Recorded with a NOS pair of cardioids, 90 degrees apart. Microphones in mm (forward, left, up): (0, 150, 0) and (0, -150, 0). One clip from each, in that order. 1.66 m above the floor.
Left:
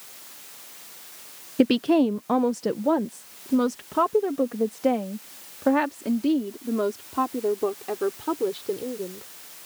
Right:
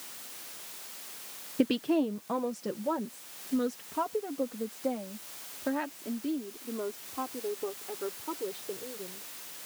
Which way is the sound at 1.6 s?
30° left.